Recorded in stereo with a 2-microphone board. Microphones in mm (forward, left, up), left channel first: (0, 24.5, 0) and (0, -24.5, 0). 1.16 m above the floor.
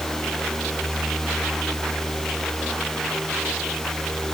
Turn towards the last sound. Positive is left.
No sound to turn to.